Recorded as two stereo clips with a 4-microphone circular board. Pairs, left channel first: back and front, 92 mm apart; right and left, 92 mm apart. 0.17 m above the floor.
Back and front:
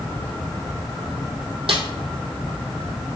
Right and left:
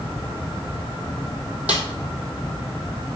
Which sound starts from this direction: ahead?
A snare drum, at 1.7 s.